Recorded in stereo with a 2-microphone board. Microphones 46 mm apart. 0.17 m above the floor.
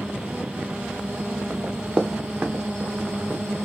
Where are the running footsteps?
25° right (ahead or behind), 0.7 m; by 3.4 s 20° right (ahead or behind), 1.7 m.